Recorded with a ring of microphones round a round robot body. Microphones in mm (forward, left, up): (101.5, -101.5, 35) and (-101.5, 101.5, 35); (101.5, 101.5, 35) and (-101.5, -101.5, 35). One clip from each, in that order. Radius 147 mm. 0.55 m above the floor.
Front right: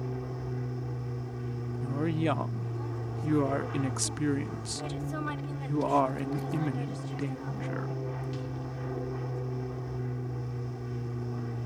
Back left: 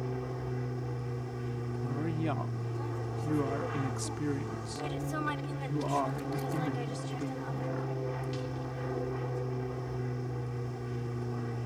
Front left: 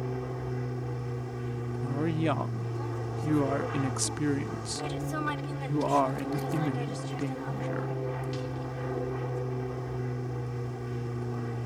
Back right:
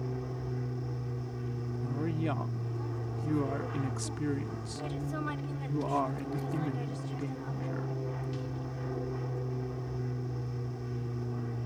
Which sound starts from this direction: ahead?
A woman speaking, at 1.8 s.